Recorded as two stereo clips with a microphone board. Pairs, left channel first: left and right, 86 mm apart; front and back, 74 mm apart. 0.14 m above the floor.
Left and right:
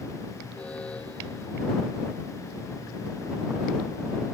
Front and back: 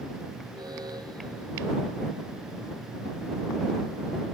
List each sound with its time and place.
0.5 s an alarm: 165° left